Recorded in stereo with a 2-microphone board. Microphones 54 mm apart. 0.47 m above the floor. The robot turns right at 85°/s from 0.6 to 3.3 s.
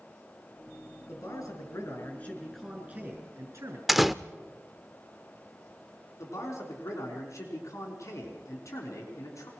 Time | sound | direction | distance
1.1 | a man speaking | 50° left | 6.5 m
3.9 | a door slam | centre (ahead or behind) | 0.6 m
6.2 | a man speaking | 70° left (ahead or behind) | 5 m